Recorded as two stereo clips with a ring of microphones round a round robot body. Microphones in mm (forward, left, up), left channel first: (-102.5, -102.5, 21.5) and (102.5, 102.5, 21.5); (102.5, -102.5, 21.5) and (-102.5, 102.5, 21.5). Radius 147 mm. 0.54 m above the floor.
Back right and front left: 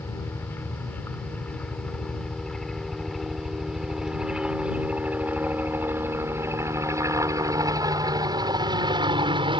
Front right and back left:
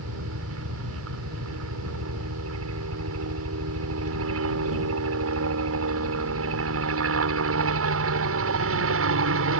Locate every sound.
0.0 s a helicopter: 145° left; by 9.6 s 115° left